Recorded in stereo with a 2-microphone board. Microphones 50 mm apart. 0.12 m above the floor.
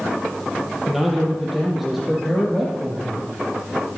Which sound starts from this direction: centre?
A man speaking, at 0.9 s.